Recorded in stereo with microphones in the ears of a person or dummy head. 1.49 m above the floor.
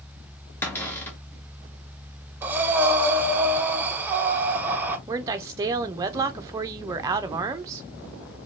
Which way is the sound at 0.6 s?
10° left (ahead or behind).